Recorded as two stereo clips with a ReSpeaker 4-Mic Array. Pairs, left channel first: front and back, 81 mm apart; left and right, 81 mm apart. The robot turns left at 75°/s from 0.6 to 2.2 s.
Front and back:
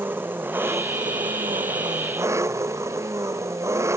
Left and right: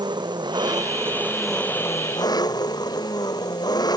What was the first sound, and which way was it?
An engine running, 115° right.